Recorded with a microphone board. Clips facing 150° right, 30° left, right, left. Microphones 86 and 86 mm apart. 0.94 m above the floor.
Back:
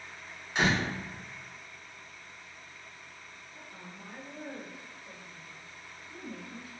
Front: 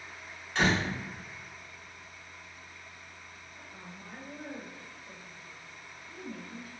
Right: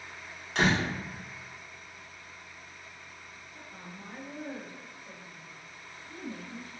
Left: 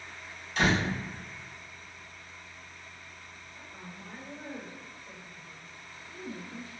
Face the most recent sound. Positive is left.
turn(degrees=-90)